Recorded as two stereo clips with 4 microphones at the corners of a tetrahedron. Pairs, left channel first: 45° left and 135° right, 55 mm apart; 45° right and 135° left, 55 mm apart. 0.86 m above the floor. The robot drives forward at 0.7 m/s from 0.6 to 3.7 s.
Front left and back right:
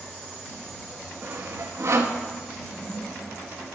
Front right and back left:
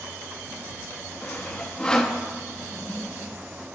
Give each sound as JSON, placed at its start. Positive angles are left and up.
{"t": 1.2, "sound": "sawing", "azimuth_deg": -95, "distance_m": 1.4}
{"t": 2.6, "sound": "a toilet flushing", "azimuth_deg": 20, "distance_m": 8.0}